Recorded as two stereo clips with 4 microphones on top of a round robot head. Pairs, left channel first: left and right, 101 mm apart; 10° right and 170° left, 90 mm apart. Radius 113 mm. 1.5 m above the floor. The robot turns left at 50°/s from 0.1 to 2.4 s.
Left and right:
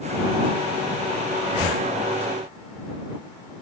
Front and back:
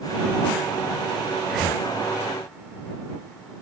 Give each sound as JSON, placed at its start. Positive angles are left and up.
{"t": 1.4, "sound": "breathing", "azimuth_deg": 85}